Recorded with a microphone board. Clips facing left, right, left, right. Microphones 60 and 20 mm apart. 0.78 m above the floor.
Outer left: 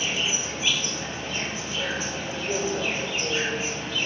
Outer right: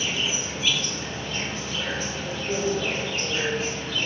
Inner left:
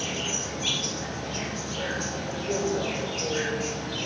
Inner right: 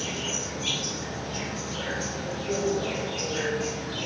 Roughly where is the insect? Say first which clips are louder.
Even, inner left 1 dB; centre.